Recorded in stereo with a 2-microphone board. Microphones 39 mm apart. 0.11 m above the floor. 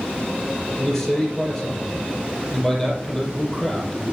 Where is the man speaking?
5° left (ahead or behind), 3.5 m.